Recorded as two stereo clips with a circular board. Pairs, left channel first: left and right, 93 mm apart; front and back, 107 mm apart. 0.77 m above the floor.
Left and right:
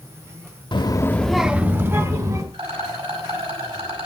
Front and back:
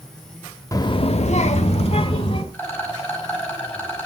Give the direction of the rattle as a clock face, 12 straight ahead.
2 o'clock.